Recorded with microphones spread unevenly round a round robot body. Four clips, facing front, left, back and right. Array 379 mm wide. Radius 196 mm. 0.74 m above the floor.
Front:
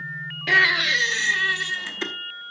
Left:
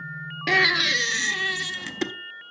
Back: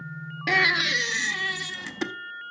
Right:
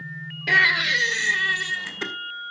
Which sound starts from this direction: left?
A baby crying, at 0.5 s.